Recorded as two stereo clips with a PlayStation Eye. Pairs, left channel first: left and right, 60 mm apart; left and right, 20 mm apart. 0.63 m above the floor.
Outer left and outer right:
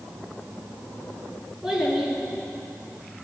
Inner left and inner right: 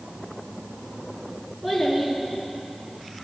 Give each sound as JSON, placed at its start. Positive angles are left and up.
{"t": 1.6, "sound": "a child speaking", "side_deg": -10, "distance_m": 6.0}